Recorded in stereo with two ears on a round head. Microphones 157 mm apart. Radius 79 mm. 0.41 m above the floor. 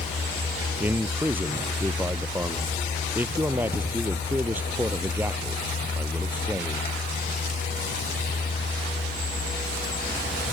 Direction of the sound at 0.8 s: 10° right (ahead or behind).